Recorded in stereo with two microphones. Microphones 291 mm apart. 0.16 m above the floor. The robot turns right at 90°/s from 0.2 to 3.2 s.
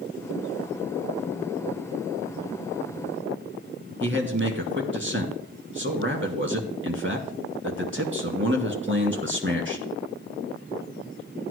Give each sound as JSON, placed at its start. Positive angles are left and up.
{"t": 4.0, "sound": "a man speaking", "side_deg": -45, "distance_m": 2.5}